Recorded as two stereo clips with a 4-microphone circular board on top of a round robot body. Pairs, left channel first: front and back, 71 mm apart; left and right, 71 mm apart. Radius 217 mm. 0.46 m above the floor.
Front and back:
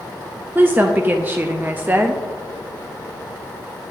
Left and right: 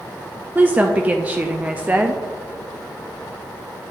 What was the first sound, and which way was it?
A woman speaking, 140° right.